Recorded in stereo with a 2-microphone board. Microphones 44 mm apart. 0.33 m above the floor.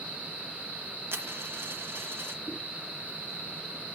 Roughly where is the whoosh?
Left.